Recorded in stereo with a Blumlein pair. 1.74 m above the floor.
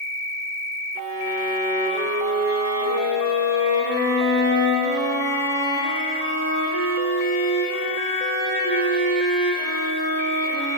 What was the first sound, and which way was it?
A violin, 50° right.